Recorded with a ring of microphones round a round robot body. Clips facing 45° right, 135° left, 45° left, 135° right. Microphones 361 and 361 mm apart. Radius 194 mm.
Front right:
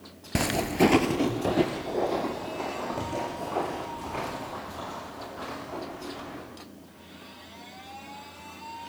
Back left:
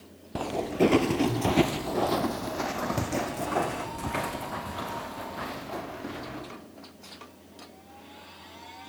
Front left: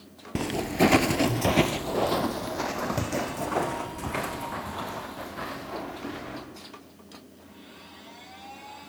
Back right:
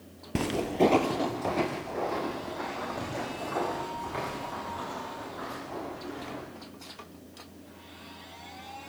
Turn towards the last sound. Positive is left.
turn(degrees=90)